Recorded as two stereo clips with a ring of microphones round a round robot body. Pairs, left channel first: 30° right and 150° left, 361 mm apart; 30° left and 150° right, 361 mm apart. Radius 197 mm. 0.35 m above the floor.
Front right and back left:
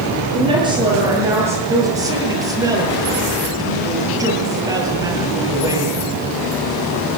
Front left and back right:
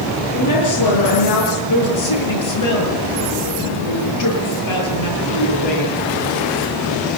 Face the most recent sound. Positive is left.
turn(degrees=70)